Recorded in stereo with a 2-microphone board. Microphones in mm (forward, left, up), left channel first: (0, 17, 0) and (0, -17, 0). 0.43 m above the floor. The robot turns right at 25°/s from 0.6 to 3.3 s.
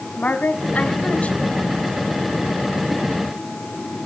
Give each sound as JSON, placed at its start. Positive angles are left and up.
{"t": 0.2, "sound": "a woman speaking", "side_deg": 50, "distance_m": 2.5}